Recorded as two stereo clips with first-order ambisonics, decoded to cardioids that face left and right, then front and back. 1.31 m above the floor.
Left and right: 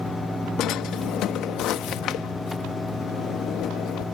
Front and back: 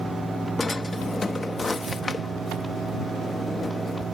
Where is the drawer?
75° left.